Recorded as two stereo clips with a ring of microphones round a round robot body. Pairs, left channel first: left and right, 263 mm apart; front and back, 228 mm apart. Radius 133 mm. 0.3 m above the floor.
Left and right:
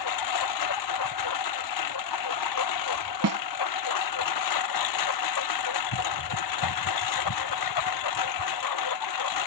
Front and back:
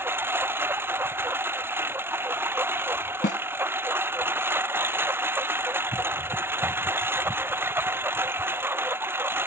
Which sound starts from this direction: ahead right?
A snare drum, at 3.2 s.